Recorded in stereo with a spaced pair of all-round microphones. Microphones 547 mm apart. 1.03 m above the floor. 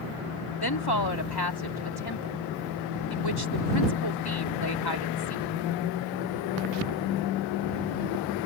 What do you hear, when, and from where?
0.6 s a woman speaking: 40° left (ahead or behind)